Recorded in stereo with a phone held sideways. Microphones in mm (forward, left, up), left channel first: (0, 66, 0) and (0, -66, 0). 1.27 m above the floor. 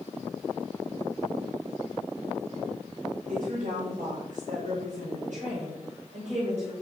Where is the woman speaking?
85° right, 5.5 m; by 6.7 s 55° right (ahead or behind), 5 m.